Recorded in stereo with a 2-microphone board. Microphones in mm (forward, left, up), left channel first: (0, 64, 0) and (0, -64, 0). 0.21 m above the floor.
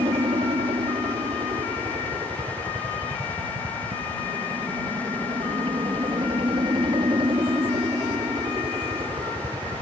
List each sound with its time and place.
0.0 s a helicopter: 50° right (ahead or behind); by 9.8 s 40° right (ahead or behind)